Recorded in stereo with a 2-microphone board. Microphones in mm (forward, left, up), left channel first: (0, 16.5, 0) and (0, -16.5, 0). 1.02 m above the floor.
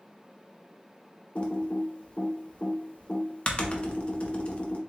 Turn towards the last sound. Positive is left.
turn(degrees=40)  # may be behind; listen again after turning